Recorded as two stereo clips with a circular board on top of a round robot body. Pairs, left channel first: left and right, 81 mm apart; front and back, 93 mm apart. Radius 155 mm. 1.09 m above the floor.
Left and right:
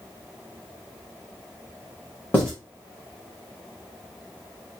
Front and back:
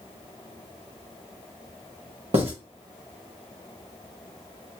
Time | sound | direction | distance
2.3 | writing | 165° left | 1.6 m